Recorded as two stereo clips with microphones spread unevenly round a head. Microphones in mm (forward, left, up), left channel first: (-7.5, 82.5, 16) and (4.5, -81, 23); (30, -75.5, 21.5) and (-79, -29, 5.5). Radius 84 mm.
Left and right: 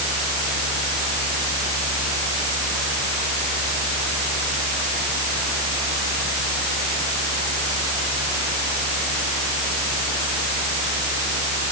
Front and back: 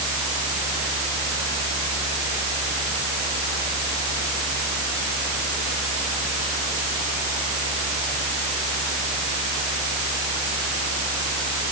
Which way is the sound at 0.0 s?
70° right.